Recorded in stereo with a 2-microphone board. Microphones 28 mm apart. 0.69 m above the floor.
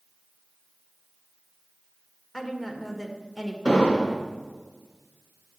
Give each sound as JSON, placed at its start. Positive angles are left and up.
{"t": 2.3, "sound": "a woman speaking", "side_deg": 5, "distance_m": 1.8}
{"t": 3.6, "sound": "an explosion", "side_deg": 25, "distance_m": 2.0}